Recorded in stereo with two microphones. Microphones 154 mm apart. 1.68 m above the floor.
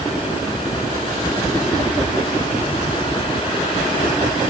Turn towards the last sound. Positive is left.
No sound to turn to.